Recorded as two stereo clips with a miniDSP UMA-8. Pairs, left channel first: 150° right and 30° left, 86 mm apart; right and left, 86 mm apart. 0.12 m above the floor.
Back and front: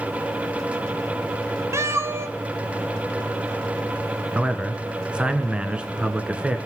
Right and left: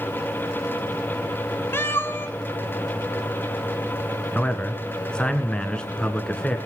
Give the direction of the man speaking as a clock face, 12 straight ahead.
1 o'clock.